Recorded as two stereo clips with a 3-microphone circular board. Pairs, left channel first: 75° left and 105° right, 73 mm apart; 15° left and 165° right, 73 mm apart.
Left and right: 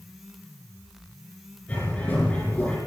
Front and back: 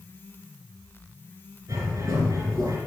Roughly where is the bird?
Behind left.